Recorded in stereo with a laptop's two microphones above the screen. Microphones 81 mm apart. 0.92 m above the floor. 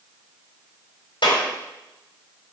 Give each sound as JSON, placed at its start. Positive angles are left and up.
{"t": 1.2, "sound": "a clap", "side_deg": 80, "distance_m": 3.5}